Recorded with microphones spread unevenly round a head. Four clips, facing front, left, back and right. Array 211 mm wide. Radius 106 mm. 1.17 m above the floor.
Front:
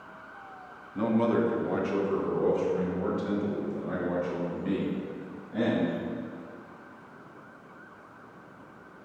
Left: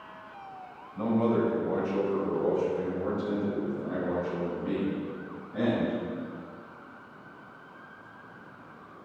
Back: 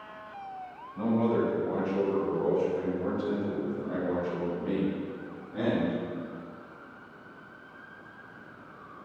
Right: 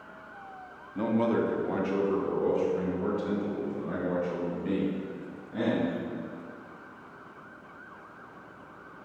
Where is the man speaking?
45° right, 2.0 m; by 6.0 s 25° right, 6 m.